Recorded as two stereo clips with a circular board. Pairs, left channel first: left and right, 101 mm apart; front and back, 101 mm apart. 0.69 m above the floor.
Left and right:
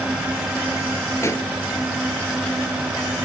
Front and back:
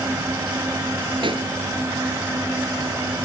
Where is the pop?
150° left, 1.9 m.